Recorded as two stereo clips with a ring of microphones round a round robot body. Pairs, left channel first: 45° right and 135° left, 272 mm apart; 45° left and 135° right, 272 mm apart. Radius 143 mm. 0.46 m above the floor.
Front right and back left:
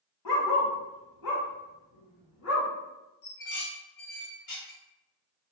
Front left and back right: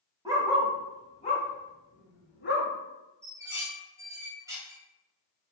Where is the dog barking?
60° right, 0.9 m; by 2.7 s 5° right, 2.0 m.